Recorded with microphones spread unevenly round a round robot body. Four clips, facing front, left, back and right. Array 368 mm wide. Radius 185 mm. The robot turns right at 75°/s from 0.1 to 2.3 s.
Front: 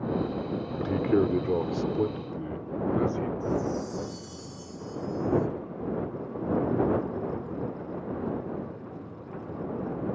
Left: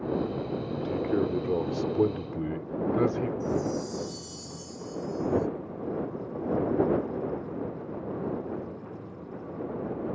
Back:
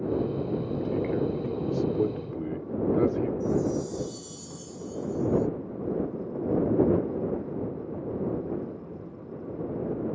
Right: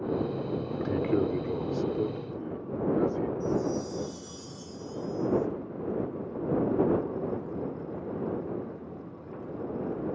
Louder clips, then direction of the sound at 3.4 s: Even, back 2 dB; 170° left.